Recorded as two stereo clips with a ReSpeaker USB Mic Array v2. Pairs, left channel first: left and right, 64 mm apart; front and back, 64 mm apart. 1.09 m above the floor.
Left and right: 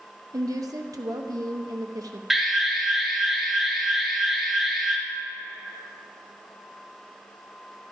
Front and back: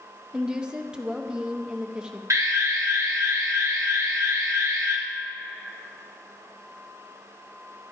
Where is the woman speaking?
105° right, 1.0 m.